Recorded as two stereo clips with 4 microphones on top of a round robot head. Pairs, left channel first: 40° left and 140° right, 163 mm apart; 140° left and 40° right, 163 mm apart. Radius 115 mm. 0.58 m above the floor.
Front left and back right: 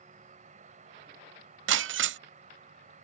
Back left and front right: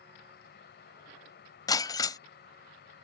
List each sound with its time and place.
0.0 s an insect: 170° left
1.7 s breaking glass: 150° right